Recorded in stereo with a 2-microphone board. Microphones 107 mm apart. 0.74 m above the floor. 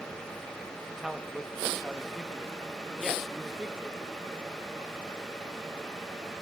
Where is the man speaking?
Centre (ahead or behind), 0.8 m.